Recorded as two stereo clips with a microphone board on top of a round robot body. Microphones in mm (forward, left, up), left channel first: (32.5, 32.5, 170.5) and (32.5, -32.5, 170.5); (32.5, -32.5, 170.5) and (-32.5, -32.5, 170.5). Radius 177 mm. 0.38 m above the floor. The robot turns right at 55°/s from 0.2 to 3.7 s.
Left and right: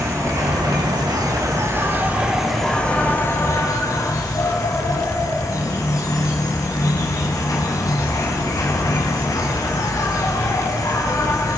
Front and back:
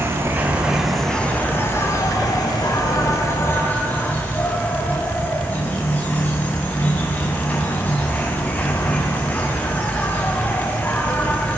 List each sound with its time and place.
0.0 s an insect: 130° right, 5 m; by 11.6 s 65° left, 5 m